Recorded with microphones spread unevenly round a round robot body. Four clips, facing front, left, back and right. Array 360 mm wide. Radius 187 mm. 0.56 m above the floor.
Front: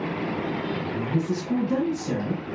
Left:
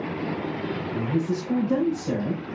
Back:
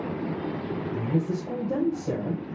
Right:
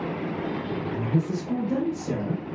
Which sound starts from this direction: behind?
A woman speaking, at 0.9 s.